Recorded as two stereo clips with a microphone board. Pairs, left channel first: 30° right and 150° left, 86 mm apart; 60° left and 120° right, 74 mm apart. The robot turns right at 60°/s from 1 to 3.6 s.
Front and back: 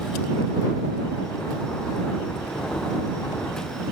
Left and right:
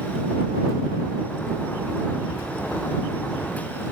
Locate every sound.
Only background noise.